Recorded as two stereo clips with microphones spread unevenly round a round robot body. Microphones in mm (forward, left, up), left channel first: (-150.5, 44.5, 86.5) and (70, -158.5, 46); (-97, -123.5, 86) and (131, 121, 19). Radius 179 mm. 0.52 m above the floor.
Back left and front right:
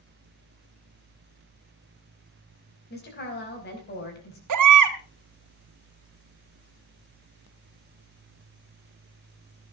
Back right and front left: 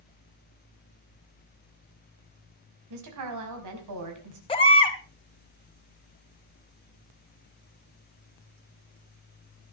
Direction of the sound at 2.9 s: 75° left.